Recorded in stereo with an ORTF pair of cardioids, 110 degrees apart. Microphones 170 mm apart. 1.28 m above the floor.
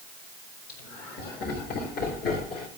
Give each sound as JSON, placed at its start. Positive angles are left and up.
{"t": 0.7, "sound": "laughter", "azimuth_deg": 70, "distance_m": 5.0}